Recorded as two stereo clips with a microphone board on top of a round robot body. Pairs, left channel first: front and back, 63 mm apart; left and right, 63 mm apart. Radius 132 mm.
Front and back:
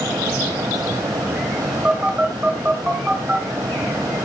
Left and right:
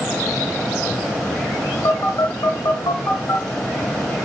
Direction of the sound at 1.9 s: 110° left.